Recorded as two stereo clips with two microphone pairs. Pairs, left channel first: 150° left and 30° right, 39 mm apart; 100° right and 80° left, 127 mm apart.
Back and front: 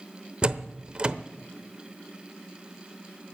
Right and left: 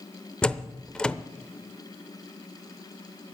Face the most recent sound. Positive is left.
turn(degrees=-25)